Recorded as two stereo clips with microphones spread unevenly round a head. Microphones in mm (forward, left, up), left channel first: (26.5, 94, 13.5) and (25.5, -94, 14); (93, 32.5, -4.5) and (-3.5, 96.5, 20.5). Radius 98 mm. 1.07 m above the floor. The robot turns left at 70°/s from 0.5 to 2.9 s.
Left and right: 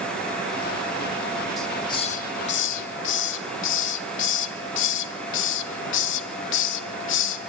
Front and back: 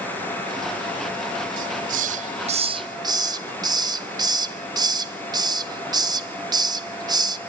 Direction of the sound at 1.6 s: Straight behind.